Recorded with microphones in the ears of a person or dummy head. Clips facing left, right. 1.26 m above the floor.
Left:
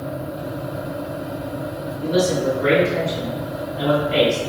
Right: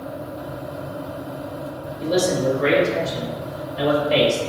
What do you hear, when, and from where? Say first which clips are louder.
2.0 s a man speaking: left 1 dB; 75° right (ahead or behind), 1.2 m